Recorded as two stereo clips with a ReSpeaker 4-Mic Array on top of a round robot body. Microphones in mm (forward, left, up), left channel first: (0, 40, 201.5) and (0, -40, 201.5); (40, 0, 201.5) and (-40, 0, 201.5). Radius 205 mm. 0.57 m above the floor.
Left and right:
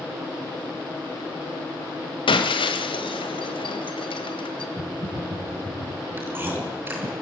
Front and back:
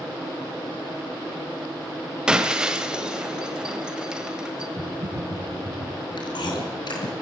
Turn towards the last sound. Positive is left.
turn(degrees=-25)